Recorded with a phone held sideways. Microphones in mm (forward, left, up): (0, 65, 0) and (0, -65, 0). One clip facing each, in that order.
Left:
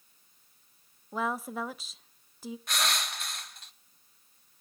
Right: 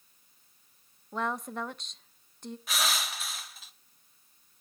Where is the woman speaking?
5° left (ahead or behind), 0.7 m.